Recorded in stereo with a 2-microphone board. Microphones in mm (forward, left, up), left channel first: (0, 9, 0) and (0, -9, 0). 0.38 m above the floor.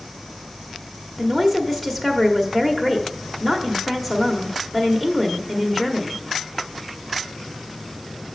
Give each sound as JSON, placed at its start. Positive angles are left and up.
{"t": 1.2, "sound": "a woman speaking", "side_deg": 0, "distance_m": 1.0}